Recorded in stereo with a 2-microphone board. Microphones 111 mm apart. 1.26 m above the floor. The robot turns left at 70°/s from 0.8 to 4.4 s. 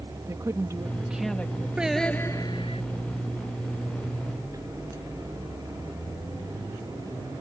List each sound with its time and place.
0.3 s a woman speaking: 150° right; by 1.7 s 150° left
1.8 s singing: 170° right; by 2.8 s 115° left